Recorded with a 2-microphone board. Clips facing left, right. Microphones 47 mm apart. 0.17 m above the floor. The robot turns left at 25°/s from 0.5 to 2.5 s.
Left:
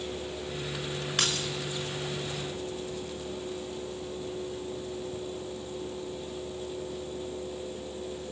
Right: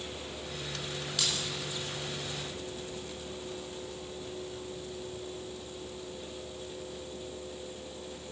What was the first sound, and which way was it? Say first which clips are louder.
Keys jangling: left 4 dB; 55° left (ahead or behind).